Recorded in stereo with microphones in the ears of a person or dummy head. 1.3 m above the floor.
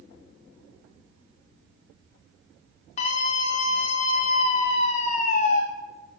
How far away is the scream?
About 0.6 m.